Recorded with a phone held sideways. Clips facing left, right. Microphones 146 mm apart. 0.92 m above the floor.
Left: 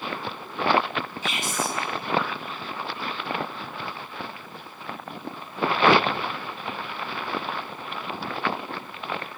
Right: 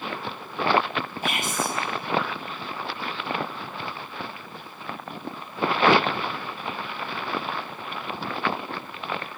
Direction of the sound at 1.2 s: 55° right (ahead or behind).